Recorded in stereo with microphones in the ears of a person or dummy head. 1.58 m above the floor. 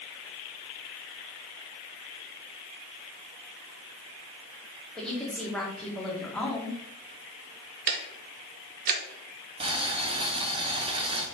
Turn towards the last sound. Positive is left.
turn(degrees=-35)  # may be behind; listen again after turning